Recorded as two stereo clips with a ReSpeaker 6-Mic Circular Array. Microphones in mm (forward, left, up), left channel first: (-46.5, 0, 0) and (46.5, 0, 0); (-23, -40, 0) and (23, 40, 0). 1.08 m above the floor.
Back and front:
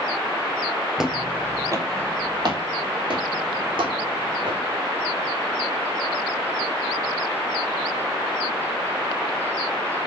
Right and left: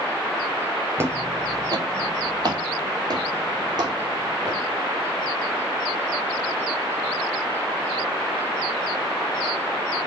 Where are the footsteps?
80° left, 1.2 m; by 4.6 s 20° left, 4.5 m.